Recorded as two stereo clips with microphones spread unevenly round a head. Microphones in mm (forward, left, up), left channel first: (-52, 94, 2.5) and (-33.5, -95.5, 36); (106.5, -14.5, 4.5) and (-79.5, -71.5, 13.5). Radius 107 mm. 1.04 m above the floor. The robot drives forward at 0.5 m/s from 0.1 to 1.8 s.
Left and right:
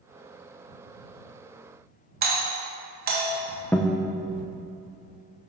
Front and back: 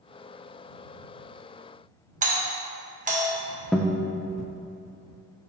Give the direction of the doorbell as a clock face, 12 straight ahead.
4 o'clock.